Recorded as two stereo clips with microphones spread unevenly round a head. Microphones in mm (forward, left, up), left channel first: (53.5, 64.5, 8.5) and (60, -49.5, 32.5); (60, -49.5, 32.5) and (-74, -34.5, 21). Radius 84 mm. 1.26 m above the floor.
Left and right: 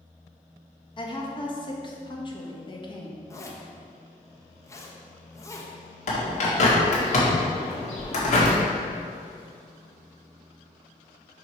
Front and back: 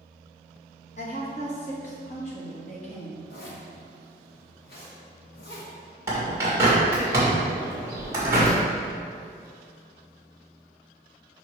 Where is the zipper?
25° left, 1.2 m.